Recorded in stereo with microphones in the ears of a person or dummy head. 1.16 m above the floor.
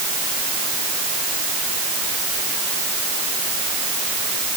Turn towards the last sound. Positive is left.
No sound to turn to.